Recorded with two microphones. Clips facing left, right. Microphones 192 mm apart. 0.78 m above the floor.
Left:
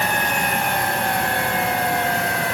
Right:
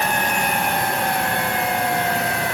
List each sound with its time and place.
Only background noise.